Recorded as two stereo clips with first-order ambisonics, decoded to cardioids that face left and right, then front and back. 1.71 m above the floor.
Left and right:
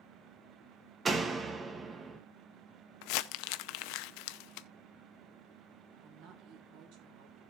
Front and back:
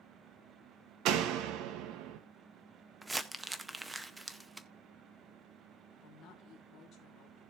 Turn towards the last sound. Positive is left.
turn(degrees=-65)